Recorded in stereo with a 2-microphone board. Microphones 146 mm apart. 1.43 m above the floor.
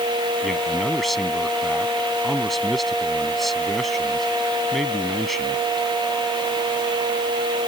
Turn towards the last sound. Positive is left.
turn(degrees=0)  # may be behind; listen again after turning